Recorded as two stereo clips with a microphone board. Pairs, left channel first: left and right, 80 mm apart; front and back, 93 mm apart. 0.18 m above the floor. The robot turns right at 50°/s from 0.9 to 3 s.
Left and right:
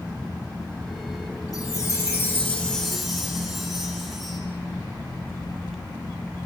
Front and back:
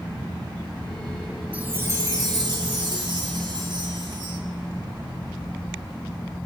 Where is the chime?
110° left, 0.9 m; by 4.4 s 175° right, 0.9 m.